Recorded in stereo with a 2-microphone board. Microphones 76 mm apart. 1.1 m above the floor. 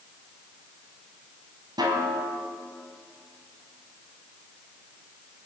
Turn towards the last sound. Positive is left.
turn(degrees=-65)  # may be behind; listen again after turning